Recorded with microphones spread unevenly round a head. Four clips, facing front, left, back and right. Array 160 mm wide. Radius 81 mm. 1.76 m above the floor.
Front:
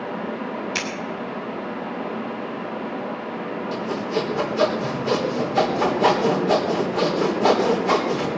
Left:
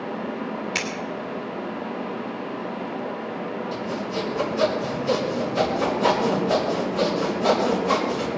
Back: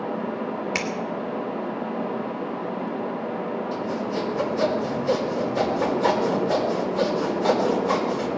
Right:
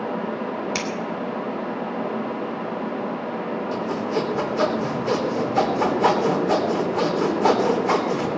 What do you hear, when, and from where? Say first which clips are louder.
0.8 s scissors: right 2 dB, back 1 dB; 105° right, 2 m
3.7 s sawing: right 6 dB, front 2 dB; 40° right, 3.5 m